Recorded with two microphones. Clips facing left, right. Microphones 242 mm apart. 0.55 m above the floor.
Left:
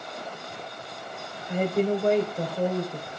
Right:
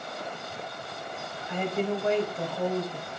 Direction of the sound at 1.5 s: 45° left (ahead or behind).